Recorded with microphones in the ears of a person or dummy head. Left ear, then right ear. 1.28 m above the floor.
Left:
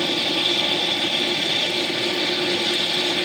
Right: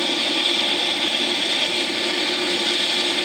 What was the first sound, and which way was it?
An aircraft, 10° right (ahead or behind).